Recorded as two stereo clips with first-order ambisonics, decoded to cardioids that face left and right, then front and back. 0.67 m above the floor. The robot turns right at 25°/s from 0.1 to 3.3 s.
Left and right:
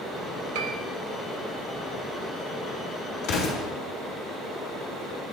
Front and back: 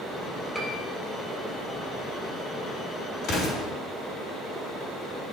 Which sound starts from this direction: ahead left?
An explosion, at 3.2 s.